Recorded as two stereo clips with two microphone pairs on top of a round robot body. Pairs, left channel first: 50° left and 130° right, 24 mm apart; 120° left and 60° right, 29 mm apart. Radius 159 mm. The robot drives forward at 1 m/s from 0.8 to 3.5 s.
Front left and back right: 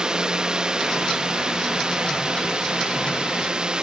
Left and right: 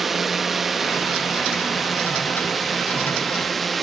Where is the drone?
150° right; by 3.8 s 160° right.